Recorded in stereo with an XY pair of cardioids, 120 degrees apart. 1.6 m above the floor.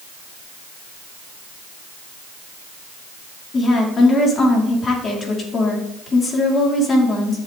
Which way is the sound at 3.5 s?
35° left.